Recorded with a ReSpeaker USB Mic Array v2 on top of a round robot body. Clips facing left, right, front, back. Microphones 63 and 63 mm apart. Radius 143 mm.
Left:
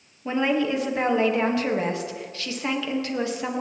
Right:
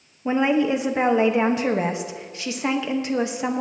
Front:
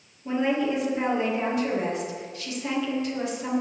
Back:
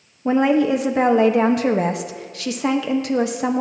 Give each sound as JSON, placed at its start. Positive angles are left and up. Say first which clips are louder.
{"t": 0.2, "sound": "a woman speaking", "louder": "right 3 dB, back 8 dB", "azimuth_deg": -160, "distance_m": 1.3}